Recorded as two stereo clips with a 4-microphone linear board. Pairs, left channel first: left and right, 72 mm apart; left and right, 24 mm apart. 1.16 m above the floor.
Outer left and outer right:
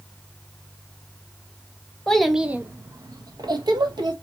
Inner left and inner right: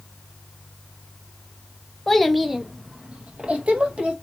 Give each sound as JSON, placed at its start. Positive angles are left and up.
{"t": 2.1, "sound": "a child speaking", "side_deg": 10, "distance_m": 0.6}